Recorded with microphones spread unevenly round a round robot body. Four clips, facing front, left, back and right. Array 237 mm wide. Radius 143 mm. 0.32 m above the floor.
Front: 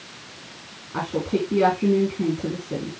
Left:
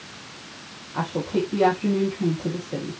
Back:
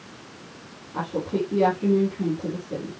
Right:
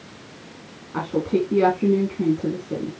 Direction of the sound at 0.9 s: 45° right.